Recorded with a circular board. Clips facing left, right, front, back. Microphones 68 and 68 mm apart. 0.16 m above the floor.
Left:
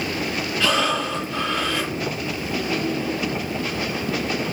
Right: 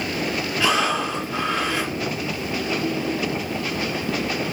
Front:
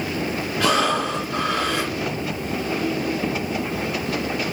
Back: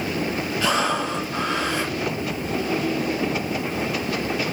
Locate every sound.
0.6 s breathing: 15° right, 4.5 m